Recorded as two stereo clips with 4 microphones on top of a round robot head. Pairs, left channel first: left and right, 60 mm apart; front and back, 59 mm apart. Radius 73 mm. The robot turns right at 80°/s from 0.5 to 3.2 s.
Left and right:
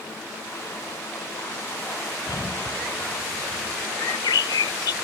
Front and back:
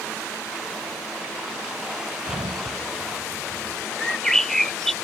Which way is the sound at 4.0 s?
85° left.